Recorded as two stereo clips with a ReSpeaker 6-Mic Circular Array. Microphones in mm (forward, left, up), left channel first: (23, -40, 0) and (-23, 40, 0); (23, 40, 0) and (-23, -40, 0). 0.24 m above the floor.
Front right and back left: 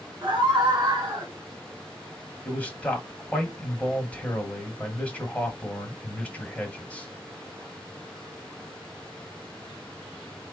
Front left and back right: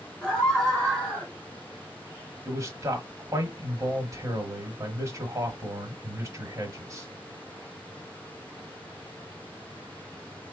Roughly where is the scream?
Behind left.